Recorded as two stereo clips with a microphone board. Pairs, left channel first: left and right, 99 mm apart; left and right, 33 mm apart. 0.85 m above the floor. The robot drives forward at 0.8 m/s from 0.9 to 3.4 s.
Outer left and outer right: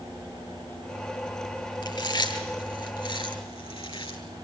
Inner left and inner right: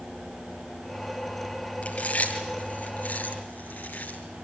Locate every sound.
1.8 s chewing: 50° left (ahead or behind), 6.5 m; by 4.2 s 60° left (ahead or behind), 6 m